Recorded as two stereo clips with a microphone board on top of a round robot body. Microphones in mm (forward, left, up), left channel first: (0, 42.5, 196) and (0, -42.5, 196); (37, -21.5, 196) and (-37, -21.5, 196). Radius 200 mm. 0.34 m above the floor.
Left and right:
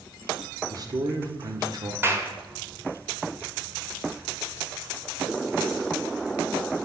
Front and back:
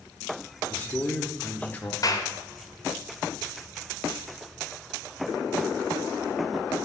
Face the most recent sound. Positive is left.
turn(degrees=-30)